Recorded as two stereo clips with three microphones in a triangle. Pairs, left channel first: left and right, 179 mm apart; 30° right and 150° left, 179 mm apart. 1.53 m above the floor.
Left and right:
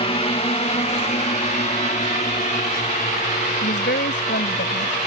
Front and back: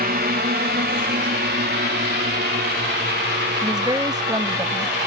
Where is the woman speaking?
80° left.